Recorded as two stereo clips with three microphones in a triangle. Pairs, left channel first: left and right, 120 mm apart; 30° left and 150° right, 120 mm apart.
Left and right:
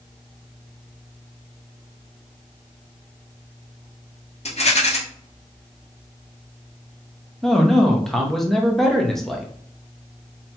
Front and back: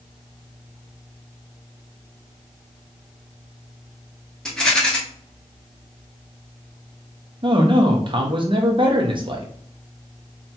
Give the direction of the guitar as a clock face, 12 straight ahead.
I don't hear a guitar.